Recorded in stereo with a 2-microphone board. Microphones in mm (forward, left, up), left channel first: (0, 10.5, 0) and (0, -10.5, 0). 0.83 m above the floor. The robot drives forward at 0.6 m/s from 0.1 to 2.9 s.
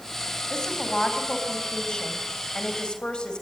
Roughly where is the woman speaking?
Left.